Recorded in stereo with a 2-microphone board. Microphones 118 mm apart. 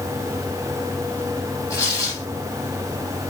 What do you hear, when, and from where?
1.7 s tearing paper: 30° left (ahead or behind), 3 m